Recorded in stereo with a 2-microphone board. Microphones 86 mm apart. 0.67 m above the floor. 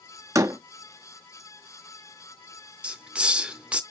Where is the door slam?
40° right (ahead or behind), 0.6 m.